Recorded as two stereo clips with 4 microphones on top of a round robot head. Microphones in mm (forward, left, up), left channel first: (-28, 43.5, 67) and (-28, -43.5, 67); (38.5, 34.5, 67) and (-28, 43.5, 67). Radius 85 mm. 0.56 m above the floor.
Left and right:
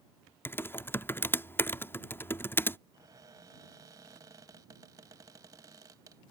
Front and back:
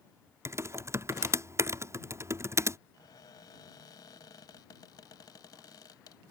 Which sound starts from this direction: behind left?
Typing on a keyboard, at 0.5 s.